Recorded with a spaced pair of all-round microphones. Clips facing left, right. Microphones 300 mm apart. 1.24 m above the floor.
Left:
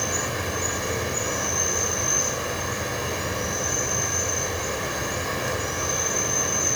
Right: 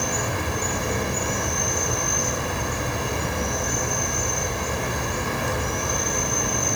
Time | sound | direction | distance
0.0 | an insect | 60° right (ahead or behind) | 10 m